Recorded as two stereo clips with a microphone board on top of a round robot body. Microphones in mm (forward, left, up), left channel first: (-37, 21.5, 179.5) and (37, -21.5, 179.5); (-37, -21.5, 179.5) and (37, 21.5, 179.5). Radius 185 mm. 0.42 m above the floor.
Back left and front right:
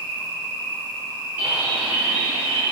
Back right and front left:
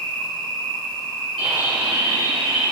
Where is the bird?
40° left, 2 m.